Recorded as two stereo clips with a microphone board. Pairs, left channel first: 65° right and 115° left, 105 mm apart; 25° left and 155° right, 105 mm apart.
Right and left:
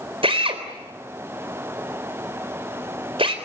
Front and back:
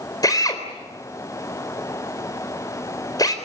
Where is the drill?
80° left, 4 m.